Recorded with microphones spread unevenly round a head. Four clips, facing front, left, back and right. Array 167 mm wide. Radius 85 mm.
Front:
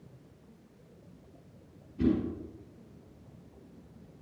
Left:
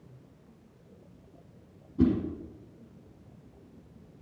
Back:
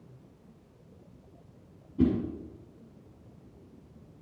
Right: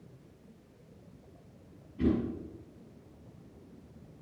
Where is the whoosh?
130° left, 5.5 m.